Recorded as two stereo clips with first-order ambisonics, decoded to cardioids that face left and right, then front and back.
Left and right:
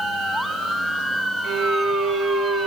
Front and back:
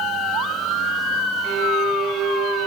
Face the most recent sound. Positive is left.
turn(degrees=-130)